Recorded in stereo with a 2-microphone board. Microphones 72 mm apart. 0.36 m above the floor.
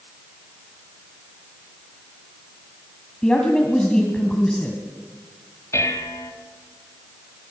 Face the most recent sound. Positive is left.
turn(degrees=40)  # may be behind; listen again after turning